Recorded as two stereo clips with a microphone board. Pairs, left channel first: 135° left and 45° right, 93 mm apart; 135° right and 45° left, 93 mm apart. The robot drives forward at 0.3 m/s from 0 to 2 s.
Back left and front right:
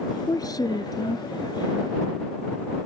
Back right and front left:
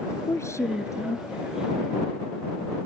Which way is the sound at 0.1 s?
175° left.